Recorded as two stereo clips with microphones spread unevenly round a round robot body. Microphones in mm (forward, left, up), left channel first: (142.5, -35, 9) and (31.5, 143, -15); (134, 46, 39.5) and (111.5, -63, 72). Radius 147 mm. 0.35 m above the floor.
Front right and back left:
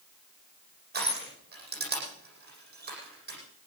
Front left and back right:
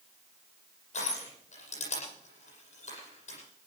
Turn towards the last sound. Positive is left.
turn(degrees=80)